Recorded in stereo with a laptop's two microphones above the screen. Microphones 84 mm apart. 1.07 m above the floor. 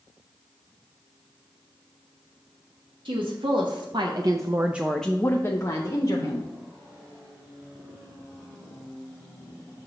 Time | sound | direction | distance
3.0 | a woman speaking | 80° right | 1.2 m